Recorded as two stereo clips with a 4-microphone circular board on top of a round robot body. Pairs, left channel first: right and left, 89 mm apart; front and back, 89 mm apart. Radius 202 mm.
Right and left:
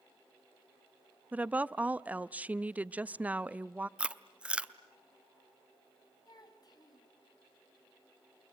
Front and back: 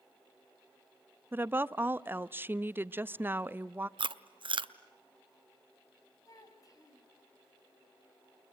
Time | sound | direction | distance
1.3 | a woman speaking | 145° left | 0.7 m
4.0 | chewing | 165° left | 0.8 m
6.2 | a child speaking | 45° right | 3.5 m